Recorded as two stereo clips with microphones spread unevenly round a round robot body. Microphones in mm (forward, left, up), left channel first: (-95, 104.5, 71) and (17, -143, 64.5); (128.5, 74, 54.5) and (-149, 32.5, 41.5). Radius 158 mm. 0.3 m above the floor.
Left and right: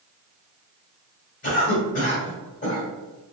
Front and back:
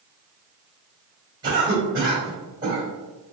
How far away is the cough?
About 1.9 m.